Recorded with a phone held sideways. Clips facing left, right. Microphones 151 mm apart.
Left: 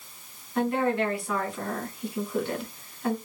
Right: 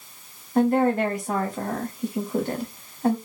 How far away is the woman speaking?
About 0.8 m.